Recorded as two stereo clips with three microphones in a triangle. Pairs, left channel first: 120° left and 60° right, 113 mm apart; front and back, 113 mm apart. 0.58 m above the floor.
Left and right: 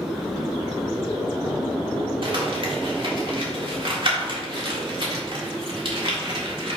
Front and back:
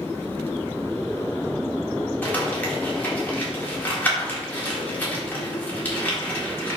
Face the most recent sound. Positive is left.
turn(degrees=-70)